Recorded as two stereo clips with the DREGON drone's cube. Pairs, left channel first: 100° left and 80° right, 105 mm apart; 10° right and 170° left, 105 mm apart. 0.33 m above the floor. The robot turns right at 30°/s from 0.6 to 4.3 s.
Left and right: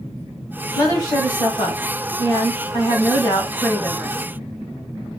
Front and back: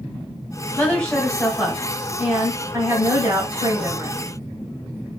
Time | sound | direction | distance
0.8 | a woman speaking | 60° left | 2.0 m